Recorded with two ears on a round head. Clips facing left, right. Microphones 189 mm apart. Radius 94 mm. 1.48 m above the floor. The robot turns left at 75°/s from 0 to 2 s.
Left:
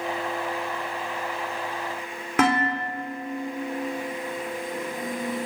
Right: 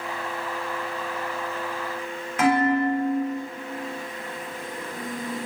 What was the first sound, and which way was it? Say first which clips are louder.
Dishes clattering: right 3 dB; 55° left (ahead or behind).